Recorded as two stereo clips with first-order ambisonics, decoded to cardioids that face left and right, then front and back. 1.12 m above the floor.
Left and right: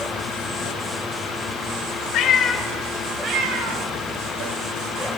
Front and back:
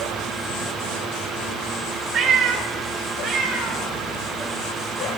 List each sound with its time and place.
2.1 s a cat meowing: 125° left, 0.9 m; by 5.1 s 105° right, 3 m